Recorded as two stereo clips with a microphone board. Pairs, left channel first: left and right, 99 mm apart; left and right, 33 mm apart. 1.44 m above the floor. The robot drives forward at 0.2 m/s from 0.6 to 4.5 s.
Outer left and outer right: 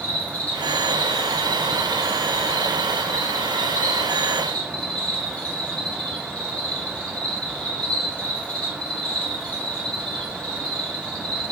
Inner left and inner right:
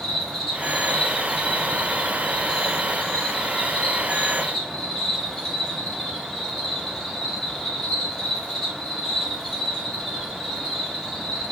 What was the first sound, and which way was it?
An insect, 15° left (ahead or behind).